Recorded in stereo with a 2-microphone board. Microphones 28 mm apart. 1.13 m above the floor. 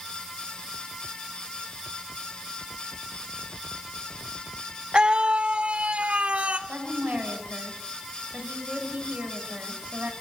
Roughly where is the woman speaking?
Right.